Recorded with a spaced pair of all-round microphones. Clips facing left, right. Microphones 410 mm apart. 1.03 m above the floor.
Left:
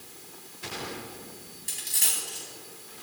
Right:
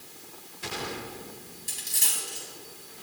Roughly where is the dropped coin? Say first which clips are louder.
Even; centre.